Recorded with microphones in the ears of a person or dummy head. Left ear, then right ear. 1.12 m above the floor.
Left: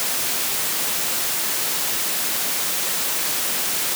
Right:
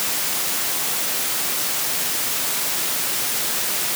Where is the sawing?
No sawing in this recording.